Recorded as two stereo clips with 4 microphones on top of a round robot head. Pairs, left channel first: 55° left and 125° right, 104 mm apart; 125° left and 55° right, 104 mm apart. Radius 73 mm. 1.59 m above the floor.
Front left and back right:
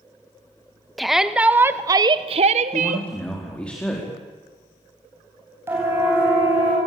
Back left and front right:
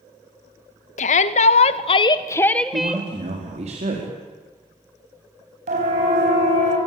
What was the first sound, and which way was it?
A shout, 140° left.